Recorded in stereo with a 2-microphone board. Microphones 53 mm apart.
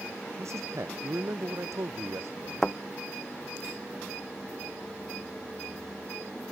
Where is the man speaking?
70° right (ahead or behind).